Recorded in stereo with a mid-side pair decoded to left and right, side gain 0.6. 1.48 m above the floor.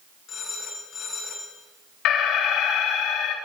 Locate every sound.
0.3 s a phone ringing: 50° left, 10 m
2.0 s an alarm: 60° left, 3.5 m